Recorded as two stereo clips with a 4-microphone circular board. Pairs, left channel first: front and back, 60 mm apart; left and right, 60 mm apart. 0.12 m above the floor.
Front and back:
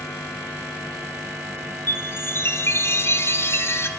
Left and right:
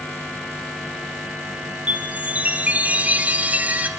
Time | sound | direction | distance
1.9 | a chime | 30° right | 2 m